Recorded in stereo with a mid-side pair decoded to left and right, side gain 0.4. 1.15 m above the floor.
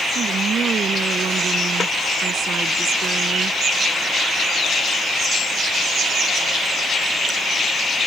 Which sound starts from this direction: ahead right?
A woman speaking, at 0.1 s.